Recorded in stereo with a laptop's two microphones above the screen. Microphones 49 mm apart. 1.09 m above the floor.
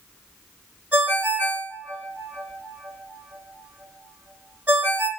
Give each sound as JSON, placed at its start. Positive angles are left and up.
{"t": 0.9, "sound": "a ringtone", "side_deg": -35, "distance_m": 2.0}